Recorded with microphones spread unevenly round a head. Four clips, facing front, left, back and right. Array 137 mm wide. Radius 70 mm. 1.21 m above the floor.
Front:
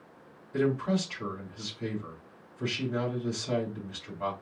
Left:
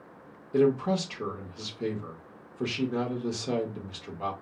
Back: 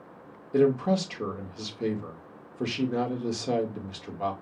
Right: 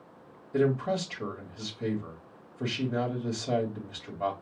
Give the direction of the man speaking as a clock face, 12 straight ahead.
7 o'clock.